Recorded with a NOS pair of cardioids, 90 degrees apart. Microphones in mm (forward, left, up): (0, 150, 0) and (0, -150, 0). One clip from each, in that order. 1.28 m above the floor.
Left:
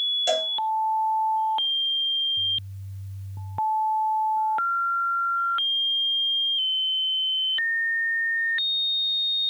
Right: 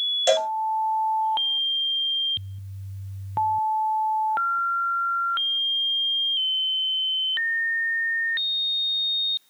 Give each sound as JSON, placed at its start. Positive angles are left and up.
{"t": 0.3, "sound": "a cowbell", "azimuth_deg": -35, "distance_m": 0.8}